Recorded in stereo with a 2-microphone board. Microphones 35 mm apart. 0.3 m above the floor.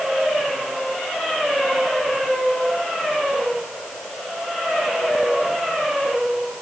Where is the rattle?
I don't hear a rattle.